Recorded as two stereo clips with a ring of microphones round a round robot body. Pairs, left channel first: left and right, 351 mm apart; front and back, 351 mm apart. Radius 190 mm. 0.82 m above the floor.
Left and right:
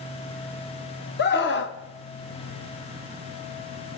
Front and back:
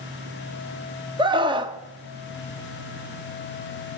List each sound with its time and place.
1.2 s a scream: 115° left, 0.9 m